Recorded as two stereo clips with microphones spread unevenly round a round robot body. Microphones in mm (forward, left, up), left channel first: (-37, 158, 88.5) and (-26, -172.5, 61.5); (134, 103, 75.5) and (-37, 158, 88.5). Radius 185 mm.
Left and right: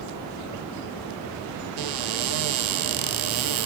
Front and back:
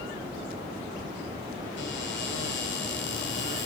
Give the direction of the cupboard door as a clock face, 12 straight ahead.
2 o'clock.